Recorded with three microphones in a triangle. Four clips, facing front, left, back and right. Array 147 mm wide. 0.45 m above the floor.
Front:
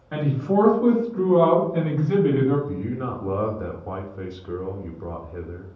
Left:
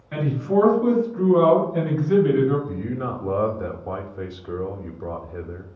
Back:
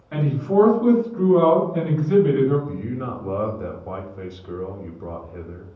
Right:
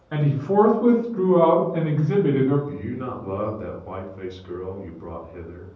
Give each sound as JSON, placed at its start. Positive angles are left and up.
{"t": 0.1, "sound": "a man speaking", "azimuth_deg": -55, "distance_m": 0.9}
{"t": 2.7, "sound": "a man speaking", "azimuth_deg": 55, "distance_m": 0.8}